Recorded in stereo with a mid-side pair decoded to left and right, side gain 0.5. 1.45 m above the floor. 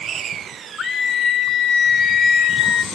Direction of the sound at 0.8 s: 50° left.